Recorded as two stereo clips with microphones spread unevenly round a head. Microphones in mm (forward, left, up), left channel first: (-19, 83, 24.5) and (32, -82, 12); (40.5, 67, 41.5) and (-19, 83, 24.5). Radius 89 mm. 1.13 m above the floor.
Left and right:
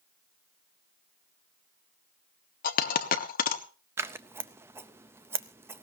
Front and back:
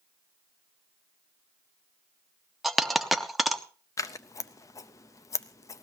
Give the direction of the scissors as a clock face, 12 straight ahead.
12 o'clock.